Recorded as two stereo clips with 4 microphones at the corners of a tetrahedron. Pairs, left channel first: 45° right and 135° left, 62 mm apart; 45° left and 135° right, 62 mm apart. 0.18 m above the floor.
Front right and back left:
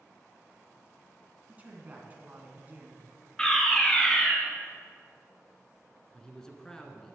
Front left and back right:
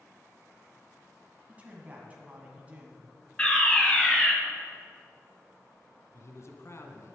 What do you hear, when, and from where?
1.5 s a man speaking: 175° left, 1.8 m
3.4 s a fire alarm: 10° left, 2.0 m
6.1 s a man speaking: 30° left, 1.6 m